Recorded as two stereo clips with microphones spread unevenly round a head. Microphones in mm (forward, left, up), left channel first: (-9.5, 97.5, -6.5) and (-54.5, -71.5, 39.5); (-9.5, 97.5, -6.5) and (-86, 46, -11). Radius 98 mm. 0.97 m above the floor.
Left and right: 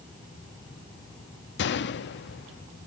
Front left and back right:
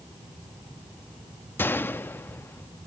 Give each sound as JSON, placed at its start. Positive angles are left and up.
{"t": 1.6, "sound": "a gunshot", "azimuth_deg": 105, "distance_m": 0.7}